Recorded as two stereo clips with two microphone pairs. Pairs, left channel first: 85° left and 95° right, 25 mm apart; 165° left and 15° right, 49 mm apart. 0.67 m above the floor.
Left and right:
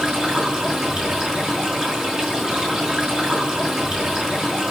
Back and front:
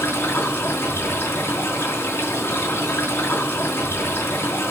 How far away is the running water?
About 4.5 m.